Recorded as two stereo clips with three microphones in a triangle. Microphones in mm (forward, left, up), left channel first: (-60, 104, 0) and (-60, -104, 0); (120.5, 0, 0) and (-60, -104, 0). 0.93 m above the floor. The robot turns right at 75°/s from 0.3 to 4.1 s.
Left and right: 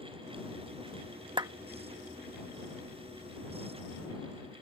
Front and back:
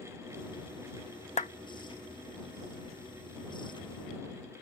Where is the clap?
25° right; by 1.5 s 15° right.